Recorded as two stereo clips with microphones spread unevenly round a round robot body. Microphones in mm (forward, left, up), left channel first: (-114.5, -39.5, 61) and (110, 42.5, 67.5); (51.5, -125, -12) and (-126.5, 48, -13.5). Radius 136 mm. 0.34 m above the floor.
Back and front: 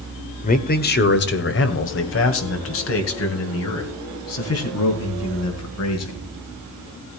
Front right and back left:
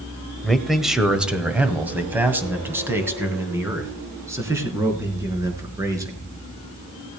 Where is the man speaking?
130° right, 1.3 m; by 6.2 s 145° right, 4.5 m.